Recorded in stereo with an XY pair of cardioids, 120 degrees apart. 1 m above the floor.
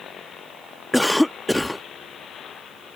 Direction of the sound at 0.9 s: 5° left.